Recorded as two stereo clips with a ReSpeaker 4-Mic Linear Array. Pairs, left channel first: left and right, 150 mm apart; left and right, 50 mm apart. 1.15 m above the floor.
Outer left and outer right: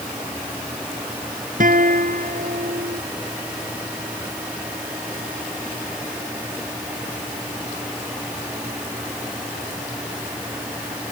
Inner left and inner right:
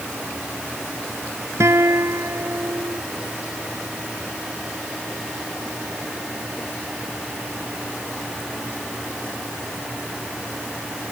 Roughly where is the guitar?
Right.